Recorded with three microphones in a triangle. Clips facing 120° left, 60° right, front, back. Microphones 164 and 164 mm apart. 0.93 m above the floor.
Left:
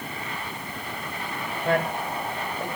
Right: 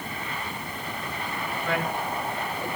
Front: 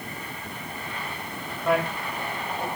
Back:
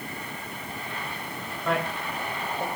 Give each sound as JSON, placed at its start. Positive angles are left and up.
{"t": 1.6, "sound": "a man speaking", "azimuth_deg": 80, "distance_m": 2.0}